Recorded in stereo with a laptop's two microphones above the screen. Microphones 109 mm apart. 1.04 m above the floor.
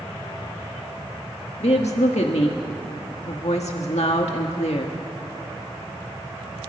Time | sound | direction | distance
1.6 | a woman speaking | 80° left | 1.6 m